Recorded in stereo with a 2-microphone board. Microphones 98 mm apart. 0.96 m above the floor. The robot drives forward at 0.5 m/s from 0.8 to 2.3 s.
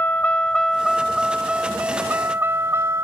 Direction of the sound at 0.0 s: 20° left (ahead or behind).